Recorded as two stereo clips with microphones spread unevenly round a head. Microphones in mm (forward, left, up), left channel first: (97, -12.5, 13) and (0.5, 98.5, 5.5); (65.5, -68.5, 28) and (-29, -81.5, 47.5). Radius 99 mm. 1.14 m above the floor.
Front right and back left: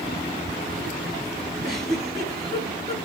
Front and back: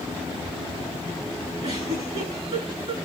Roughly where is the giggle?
Behind.